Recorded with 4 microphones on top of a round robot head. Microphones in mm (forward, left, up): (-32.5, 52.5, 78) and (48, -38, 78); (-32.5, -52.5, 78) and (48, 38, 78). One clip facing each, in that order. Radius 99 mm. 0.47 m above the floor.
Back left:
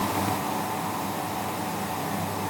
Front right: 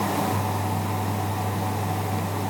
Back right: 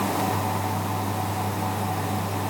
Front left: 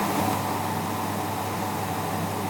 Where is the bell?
No bell in this recording.